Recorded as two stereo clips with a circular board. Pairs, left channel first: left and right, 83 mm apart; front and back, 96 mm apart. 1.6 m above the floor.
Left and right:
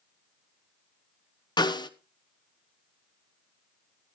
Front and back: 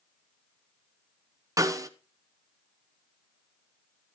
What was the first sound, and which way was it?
A snare drum, 125° left.